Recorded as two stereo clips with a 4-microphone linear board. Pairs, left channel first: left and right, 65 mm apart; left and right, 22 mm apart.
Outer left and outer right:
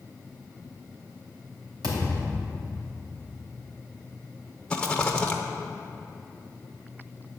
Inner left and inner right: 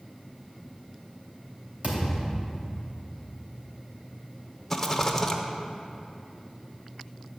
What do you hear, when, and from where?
1.8 s a thud: 70° right (ahead or behind), 3 m
4.7 s a rattle: 10° left (ahead or behind), 0.9 m